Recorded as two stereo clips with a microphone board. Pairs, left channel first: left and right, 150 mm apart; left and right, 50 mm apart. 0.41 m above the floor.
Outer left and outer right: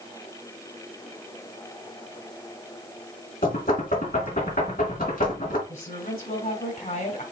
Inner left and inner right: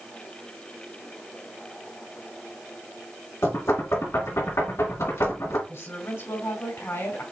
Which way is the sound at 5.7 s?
65° left (ahead or behind).